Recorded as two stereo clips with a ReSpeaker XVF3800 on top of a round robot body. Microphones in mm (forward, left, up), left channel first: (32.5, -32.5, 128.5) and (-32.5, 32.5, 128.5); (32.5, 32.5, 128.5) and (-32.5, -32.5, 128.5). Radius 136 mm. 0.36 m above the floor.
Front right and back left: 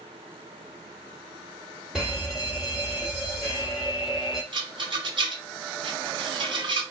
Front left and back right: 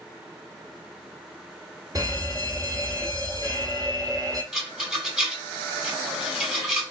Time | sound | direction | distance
1.9 | an alarm | 140° right | 2.5 m
4.5 | a rattle | 140° left | 2.5 m